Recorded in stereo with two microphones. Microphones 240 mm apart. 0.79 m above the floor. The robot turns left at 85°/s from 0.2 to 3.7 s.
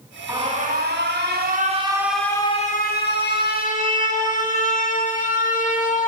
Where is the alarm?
20° right, 1.1 m; by 6.1 s 50° left, 1.1 m.